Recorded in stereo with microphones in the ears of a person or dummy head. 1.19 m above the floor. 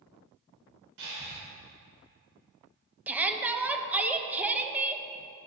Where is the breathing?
75° right (ahead or behind), 3 m.